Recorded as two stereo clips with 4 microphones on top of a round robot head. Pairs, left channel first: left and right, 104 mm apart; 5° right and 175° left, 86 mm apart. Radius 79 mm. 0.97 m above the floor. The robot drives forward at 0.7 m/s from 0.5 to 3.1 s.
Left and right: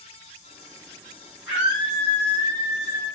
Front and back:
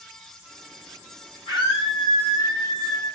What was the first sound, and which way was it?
A scream, 10° right.